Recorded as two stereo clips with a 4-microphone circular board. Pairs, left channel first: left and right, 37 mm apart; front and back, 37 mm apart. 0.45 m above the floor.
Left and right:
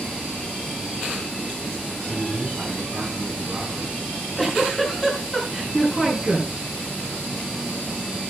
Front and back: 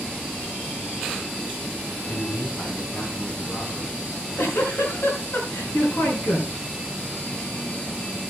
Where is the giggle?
10° left, 6.5 m.